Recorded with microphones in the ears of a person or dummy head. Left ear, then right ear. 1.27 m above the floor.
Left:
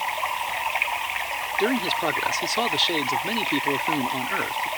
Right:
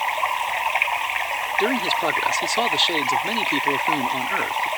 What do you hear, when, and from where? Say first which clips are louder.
0.0 s running water: right 4 dB; 25° right (ahead or behind)
1.6 s a man speaking: right 2 dB; 10° right (ahead or behind)